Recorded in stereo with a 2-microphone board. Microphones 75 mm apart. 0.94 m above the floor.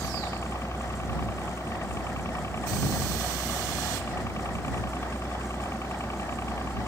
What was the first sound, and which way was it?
A helicopter, 40° left (ahead or behind).